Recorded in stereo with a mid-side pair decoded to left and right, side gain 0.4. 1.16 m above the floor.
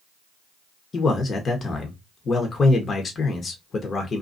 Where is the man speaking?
45° left, 0.9 m.